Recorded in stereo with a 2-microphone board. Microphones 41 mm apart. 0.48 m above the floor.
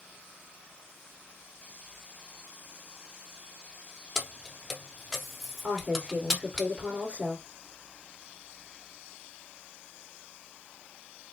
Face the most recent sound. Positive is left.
turn(degrees=-25)  # may be behind; listen again after turning